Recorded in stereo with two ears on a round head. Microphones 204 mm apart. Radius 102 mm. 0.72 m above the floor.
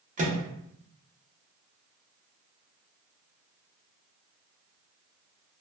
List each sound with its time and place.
0.2 s a microwave: 35° right (ahead or behind), 0.7 m